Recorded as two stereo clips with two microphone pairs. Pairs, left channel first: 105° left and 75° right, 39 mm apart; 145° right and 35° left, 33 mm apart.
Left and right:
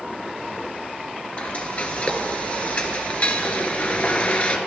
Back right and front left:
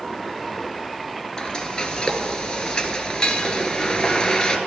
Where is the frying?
155° left, 1.1 m.